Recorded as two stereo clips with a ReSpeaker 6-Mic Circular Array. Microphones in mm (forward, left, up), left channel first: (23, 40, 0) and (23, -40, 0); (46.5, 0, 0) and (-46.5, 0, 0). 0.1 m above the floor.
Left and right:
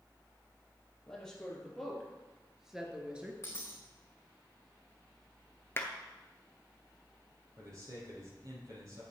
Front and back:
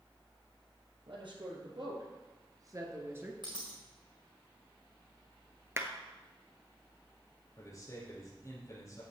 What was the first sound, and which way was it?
A woman speaking, 170° left.